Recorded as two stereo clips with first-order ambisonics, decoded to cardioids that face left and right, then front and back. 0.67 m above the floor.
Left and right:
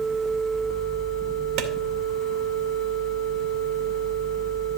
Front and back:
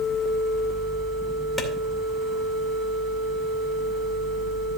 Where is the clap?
80° right, 2.5 m.